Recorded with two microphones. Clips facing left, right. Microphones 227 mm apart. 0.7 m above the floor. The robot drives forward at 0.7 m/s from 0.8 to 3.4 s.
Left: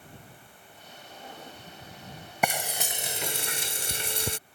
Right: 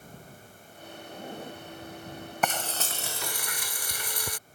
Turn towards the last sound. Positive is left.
turn(degrees=25)  # may be behind; listen again after turning